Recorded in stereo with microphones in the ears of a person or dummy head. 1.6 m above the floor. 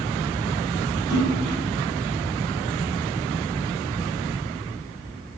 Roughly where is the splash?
Right.